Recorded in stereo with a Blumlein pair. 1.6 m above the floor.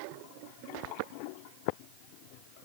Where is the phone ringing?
I don't hear a phone ringing.